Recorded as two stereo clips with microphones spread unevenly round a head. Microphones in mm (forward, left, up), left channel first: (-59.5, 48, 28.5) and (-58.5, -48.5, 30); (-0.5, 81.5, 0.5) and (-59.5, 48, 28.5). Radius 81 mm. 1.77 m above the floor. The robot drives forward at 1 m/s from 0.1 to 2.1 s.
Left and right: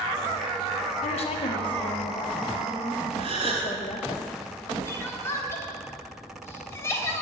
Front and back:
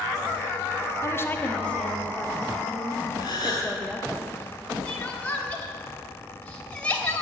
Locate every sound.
1.0 s a woman speaking: 85° left, 1.5 m; by 4.2 s 125° left, 1.8 m
3.2 s a gasp: 95° right, 3 m
4.8 s crying: 125° left, 1.5 m